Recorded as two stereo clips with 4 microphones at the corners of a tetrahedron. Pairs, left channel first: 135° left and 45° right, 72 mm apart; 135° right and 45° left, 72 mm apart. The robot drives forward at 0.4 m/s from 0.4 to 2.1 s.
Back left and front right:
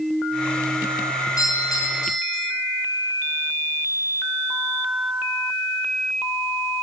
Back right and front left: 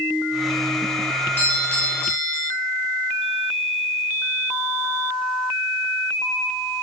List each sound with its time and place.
1.4 s a doorbell: 170° left, 6 m